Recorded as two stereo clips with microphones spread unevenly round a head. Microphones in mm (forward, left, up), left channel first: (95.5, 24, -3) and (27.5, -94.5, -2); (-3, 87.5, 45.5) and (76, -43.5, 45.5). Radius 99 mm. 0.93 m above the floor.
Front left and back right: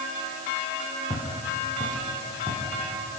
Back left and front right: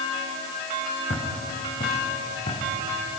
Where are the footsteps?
170° left, 6.5 m.